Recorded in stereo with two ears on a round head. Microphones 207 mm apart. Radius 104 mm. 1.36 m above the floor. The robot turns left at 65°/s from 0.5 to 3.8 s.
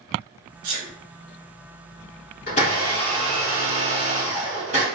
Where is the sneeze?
85° right, 0.9 m; by 0.9 s 75° right (ahead or behind), 0.9 m.